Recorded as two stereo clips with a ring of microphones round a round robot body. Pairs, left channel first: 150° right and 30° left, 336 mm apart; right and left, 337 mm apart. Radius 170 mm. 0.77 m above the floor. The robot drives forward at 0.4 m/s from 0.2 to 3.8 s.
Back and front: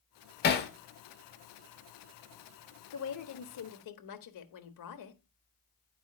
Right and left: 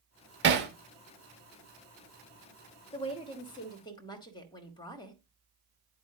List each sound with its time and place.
0.4 s hammering: 150° left, 1.1 m
2.9 s a woman speaking: 160° right, 1.1 m; by 5.2 s 165° right, 1.3 m